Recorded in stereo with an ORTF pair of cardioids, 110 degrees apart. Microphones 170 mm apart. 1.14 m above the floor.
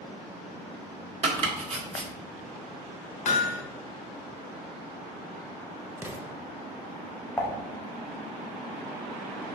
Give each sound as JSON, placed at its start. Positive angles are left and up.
{"t": 1.2, "sound": "chopping", "azimuth_deg": -40, "distance_m": 1.4}
{"t": 3.2, "sound": "hammering", "azimuth_deg": 45, "distance_m": 1.1}
{"t": 6.0, "sound": "an explosion", "azimuth_deg": -15, "distance_m": 0.6}
{"t": 7.4, "sound": "dishes clattering", "azimuth_deg": 10, "distance_m": 0.9}